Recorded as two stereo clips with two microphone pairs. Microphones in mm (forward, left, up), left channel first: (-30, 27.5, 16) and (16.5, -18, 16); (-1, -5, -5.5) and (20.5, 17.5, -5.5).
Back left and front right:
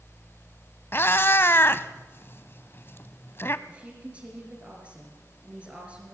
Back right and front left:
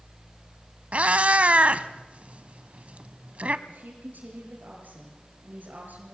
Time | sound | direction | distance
0.9 | a cat meowing | 85° left | 0.7 m
3.7 | a woman speaking | 25° left | 5.5 m